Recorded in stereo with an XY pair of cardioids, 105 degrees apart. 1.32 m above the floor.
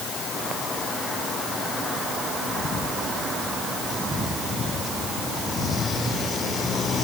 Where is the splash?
No splash in this recording.